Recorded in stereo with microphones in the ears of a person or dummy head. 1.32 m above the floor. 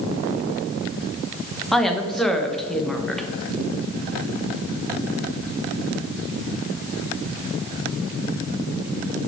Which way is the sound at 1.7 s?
Centre (ahead or behind).